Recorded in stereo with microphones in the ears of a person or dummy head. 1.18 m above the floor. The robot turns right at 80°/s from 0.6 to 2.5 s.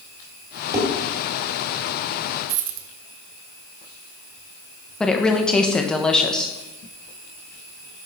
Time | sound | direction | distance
0.7 | dishes clattering | 20° right (ahead or behind) | 2 m
2.5 | a dropped coin | 55° right (ahead or behind) | 0.9 m
5.0 | a woman speaking | 10° left (ahead or behind) | 0.8 m